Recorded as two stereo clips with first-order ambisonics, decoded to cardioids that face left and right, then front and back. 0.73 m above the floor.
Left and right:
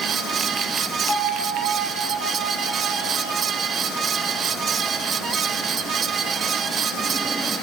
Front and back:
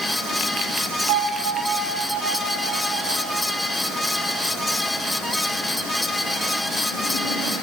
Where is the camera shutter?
No camera shutter in this recording.